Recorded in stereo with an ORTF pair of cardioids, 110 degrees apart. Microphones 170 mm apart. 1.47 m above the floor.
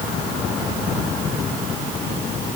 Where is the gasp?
I don't hear a gasp.